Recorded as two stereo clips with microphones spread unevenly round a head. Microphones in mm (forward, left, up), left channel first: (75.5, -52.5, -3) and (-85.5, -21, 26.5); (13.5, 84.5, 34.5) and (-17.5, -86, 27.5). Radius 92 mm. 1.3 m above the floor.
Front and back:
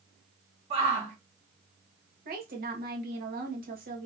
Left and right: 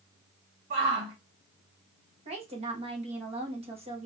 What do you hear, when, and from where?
0.7 s a shout: 140° right, 2 m
2.2 s a woman speaking: 160° right, 1.3 m